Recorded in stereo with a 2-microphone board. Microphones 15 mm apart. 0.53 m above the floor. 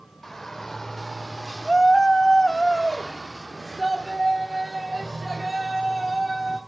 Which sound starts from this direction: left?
A shout, at 0.2 s.